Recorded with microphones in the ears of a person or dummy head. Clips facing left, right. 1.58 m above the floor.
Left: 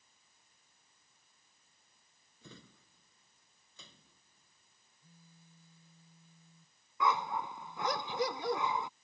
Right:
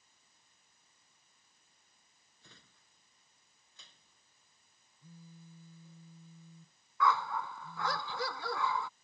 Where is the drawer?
75° left (ahead or behind).